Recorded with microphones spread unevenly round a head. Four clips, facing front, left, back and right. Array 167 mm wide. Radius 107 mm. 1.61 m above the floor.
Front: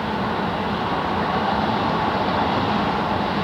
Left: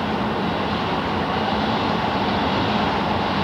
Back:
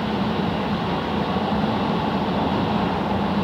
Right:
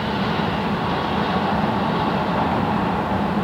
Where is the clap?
I don't hear a clap.